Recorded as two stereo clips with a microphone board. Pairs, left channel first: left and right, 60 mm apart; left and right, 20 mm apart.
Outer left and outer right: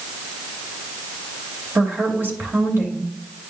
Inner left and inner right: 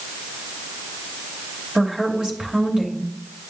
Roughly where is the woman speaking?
Right.